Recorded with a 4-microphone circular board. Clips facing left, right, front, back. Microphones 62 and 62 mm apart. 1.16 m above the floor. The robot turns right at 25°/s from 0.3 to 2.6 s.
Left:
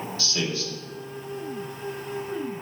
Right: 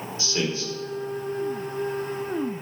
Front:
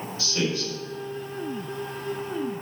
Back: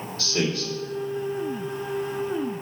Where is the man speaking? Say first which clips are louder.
Right 3 dB, back 1 dB; 155° right, 3 m; by 0.7 s 145° right, 3 m.